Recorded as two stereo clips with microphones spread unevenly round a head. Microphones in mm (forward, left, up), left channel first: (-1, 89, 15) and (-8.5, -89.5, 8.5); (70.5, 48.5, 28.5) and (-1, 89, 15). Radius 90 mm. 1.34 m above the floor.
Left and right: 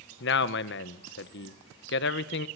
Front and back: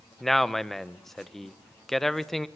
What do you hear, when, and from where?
0.2 s a man speaking: 60° left, 1.2 m